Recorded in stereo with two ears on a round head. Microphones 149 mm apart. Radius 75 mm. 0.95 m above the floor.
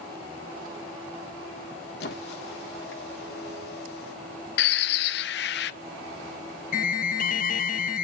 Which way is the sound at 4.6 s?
70° left (ahead or behind).